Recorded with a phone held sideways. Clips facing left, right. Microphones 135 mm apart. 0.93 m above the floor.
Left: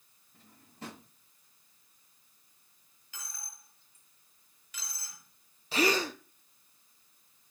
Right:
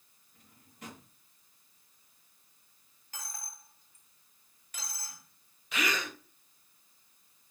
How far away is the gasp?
About 0.7 m.